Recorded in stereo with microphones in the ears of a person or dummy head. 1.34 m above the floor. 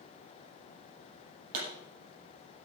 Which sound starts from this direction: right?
A pop, at 1.5 s.